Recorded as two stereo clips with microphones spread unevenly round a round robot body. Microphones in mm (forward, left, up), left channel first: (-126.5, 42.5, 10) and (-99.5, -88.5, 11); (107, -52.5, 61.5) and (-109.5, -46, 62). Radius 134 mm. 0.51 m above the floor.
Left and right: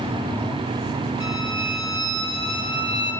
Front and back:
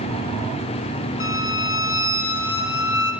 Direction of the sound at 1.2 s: 5° right.